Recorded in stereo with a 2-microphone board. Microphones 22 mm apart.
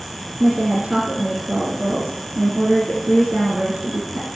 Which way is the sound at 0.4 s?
75° right (ahead or behind).